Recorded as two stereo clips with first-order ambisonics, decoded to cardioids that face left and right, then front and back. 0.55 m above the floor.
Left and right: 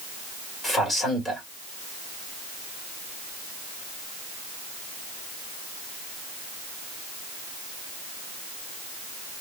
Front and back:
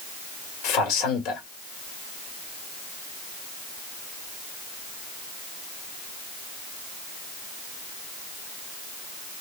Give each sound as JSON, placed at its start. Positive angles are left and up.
{"t": 0.6, "sound": "a man speaking", "azimuth_deg": 15, "distance_m": 1.7}